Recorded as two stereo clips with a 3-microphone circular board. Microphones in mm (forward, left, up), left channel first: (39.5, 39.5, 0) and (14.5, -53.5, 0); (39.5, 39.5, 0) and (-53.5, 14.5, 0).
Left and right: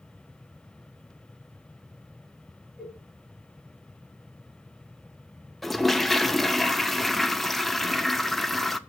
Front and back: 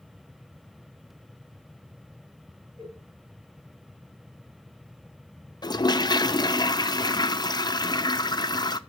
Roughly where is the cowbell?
Behind.